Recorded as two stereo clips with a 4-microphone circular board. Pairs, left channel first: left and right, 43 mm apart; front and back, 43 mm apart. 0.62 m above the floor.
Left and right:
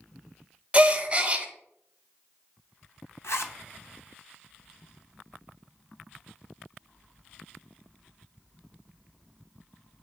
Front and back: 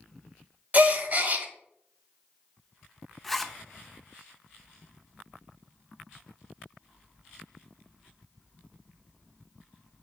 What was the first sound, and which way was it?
A gasp, 145° right.